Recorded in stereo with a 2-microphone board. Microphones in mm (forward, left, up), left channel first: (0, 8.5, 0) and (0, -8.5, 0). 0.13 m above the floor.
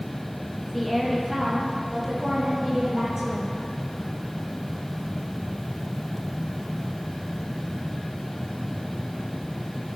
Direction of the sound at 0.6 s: 15° left (ahead or behind).